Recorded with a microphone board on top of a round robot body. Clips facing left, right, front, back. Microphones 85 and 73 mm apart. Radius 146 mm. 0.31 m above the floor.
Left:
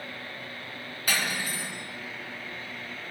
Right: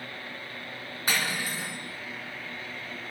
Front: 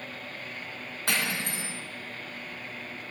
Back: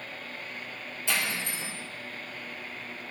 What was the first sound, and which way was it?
Cutlery clinking, 30° right.